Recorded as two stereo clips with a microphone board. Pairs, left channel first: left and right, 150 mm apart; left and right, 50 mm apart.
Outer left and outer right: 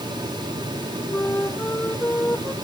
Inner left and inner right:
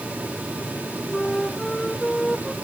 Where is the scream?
I don't hear a scream.